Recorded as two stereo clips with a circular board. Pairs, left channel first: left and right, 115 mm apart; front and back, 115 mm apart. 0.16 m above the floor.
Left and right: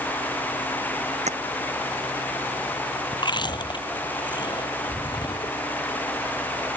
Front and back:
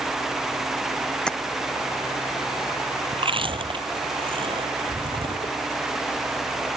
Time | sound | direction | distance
1.3 | tapping | 85° right | ?
3.1 | chewing | 140° left | ?